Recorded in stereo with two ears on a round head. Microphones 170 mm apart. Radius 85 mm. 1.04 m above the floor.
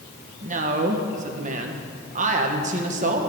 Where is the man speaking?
40° right (ahead or behind), 1.0 m.